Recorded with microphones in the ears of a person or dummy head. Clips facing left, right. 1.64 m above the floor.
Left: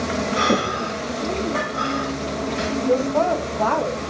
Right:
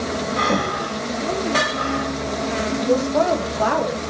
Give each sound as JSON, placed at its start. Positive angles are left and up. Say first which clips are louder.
{"t": 0.4, "sound": "breathing", "louder": "left 1 dB", "side_deg": 30, "distance_m": 3.0}
{"t": 2.9, "sound": "a woman speaking", "louder": "right 1 dB", "side_deg": -10, "distance_m": 2.5}